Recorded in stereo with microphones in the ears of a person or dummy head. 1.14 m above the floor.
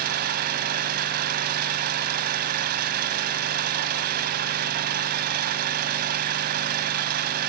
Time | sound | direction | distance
0.0 | an engine running | 50° right (ahead or behind) | 1.7 m